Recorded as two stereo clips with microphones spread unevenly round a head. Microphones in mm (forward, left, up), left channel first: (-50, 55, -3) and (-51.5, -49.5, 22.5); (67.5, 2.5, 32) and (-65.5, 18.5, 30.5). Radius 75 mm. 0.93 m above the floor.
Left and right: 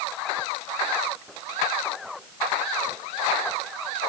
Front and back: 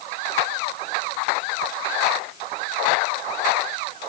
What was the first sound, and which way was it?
Only background noise.